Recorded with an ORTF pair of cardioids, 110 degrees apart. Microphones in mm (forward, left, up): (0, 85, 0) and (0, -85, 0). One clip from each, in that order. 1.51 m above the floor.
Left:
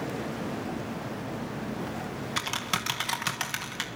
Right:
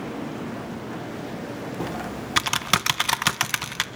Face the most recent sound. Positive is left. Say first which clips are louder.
# right 4 dB
turn(degrees=-40)